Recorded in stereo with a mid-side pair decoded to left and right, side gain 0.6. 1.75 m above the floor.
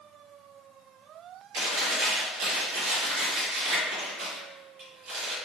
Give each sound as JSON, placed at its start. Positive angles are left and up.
{"t": 1.5, "sound": "chewing", "azimuth_deg": -70, "distance_m": 1.1}